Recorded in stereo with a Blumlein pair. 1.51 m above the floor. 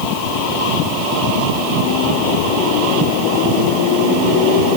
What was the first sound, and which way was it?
Only background noise.